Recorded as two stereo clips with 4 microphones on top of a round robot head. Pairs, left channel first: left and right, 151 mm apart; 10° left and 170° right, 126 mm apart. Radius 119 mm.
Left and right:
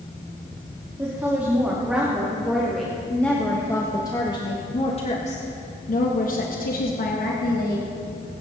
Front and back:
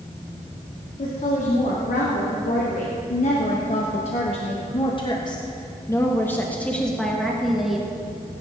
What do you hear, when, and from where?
1.0 s a woman speaking: 15° right, 2.5 m; by 7.9 s 105° left, 2 m